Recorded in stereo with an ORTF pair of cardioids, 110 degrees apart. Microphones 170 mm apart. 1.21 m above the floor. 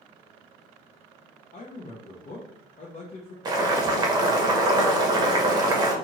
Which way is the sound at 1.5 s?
50° left.